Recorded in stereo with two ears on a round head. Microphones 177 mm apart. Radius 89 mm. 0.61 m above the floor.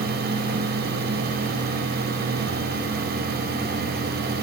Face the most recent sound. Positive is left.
No sound to turn to.